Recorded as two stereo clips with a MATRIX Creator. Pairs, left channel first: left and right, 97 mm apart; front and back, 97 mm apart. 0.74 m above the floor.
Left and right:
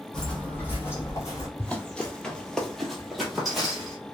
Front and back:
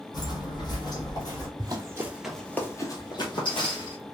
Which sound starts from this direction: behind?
Running footsteps, at 1.6 s.